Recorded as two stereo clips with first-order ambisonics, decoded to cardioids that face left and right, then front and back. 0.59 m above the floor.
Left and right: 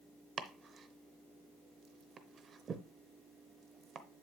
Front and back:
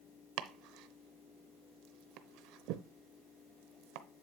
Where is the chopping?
155° right, 0.7 m.